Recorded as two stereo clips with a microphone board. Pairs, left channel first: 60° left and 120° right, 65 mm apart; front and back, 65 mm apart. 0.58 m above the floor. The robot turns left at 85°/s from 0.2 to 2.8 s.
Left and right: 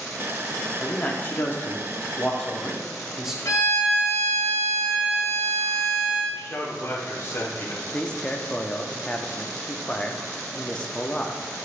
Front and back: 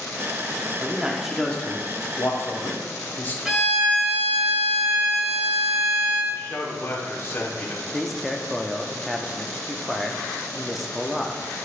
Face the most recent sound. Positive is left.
turn(degrees=95)